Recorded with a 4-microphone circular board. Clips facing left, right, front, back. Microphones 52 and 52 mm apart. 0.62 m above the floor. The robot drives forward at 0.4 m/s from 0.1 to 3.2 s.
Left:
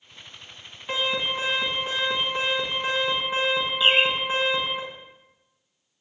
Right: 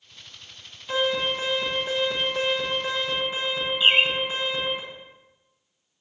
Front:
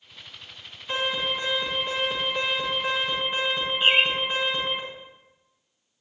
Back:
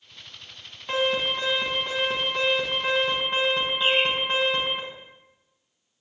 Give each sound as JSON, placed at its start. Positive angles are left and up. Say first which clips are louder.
{"t": 0.9, "sound": "an alarm", "louder": "right 2 dB, back 3 dB", "azimuth_deg": 150, "distance_m": 5.0}
{"t": 3.8, "sound": "a bird", "louder": "right 1 dB, front 3 dB", "azimuth_deg": -40, "distance_m": 0.7}